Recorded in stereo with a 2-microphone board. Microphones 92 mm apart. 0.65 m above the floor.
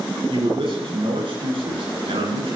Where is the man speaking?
70° right (ahead or behind), 8.5 m; by 2.6 s 75° right (ahead or behind), 9 m.